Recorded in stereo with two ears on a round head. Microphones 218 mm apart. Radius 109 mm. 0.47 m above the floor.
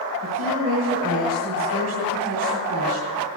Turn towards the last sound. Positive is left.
turn(degrees=-65)  # may be behind; listen again after turning